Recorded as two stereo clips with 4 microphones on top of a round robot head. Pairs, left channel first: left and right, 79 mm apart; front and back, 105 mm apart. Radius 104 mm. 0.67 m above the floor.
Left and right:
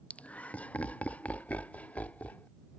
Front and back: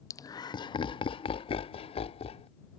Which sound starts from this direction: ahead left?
Laughter, at 0.1 s.